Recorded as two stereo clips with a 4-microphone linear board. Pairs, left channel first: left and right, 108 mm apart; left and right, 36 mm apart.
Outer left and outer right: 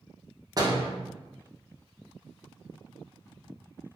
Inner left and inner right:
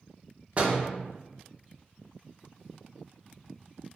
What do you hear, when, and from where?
0.6 s a door slam: 35° right (ahead or behind), 0.8 m